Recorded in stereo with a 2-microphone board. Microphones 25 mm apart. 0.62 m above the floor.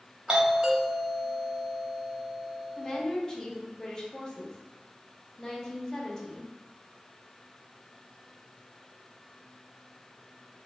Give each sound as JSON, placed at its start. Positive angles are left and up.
{"t": 0.3, "sound": "a doorbell", "side_deg": -30, "distance_m": 1.1}
{"t": 2.8, "sound": "a woman speaking", "side_deg": 30, "distance_m": 0.7}